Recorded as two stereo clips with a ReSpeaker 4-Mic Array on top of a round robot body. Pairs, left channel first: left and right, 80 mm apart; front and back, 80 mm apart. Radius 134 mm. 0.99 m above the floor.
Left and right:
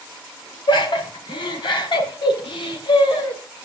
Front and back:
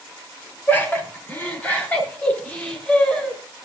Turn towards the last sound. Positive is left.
turn(degrees=75)